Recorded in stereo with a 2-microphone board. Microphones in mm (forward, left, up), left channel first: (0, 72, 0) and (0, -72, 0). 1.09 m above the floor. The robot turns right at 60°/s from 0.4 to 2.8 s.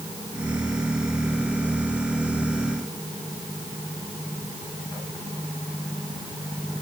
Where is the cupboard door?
I don't hear a cupboard door.